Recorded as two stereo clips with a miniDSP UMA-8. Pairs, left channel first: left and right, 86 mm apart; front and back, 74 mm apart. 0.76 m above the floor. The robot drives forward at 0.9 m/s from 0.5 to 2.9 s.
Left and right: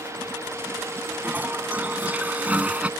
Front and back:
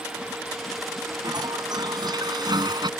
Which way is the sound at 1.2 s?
160° right.